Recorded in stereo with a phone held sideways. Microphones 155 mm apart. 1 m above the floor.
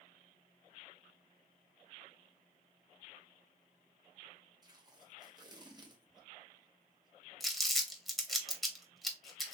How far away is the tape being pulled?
About 0.8 m.